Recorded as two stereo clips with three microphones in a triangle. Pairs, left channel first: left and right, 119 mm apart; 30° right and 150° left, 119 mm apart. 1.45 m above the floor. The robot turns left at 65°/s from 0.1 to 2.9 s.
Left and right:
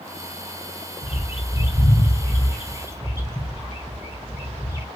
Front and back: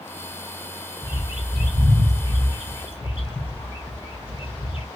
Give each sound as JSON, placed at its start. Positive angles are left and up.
{"t": 1.0, "sound": "a bird", "azimuth_deg": 95, "distance_m": 0.9}